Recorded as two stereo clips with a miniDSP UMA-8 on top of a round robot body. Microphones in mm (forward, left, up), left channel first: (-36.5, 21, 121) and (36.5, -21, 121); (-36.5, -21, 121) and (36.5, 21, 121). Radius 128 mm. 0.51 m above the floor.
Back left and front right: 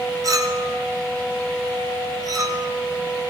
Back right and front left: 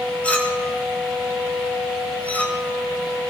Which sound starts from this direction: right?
A clink, at 0.2 s.